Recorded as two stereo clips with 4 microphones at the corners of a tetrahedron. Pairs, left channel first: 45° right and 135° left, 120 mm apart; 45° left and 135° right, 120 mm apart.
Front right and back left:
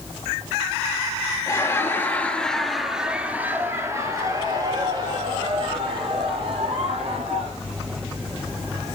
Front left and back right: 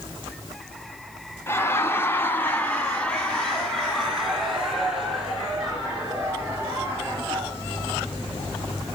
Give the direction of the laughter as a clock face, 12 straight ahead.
12 o'clock.